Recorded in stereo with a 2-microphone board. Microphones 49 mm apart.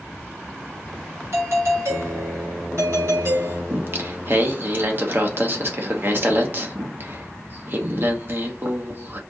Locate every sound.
1.3 s a doorbell: 65° right (ahead or behind), 3.5 m
3.7 s singing: 50° right (ahead or behind), 0.9 m